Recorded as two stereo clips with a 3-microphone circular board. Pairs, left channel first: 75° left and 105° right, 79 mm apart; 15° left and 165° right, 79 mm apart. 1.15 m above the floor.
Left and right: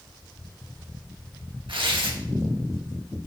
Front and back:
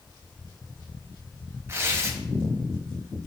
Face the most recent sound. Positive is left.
turn(degrees=-110)